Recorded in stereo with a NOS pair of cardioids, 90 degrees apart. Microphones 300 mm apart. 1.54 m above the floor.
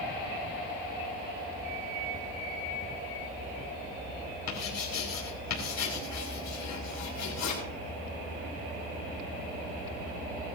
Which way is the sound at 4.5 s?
70° left.